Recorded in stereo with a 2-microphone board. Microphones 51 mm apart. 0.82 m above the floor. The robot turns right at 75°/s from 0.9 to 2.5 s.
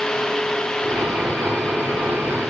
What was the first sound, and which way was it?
Only background noise.